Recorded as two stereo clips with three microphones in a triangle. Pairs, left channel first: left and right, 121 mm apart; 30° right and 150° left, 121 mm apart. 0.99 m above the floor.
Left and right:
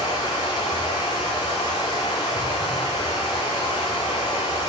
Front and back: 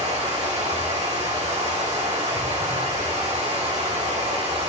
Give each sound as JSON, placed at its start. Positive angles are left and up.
{"t": 0.0, "sound": "running water", "azimuth_deg": 140, "distance_m": 4.5}